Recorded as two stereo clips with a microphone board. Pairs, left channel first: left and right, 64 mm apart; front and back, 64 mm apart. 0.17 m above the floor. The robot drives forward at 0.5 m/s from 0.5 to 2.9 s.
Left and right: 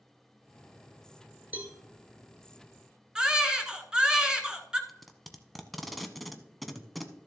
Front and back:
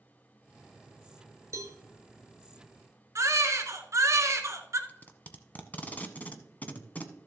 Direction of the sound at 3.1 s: 165° right.